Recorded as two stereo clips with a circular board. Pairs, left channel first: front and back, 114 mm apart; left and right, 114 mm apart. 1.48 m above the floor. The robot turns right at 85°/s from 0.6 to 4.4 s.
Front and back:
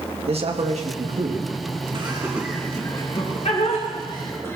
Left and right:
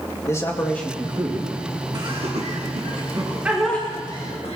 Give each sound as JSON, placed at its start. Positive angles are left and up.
{"t": 0.3, "sound": "a man speaking", "azimuth_deg": 155, "distance_m": 2.0}
{"t": 1.9, "sound": "laughter", "azimuth_deg": -145, "distance_m": 2.5}